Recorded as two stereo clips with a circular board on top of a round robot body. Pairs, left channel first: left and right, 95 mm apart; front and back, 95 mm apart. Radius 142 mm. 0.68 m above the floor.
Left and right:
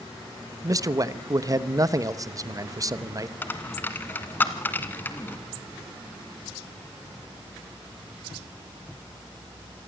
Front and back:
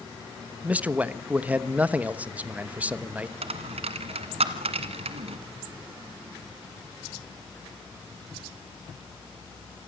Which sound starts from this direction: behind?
A dropped coin, at 3.4 s.